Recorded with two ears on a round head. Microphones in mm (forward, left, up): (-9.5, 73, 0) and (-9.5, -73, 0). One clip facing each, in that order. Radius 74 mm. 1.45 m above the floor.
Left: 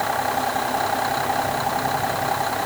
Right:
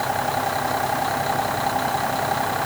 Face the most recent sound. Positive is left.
No sound to turn to.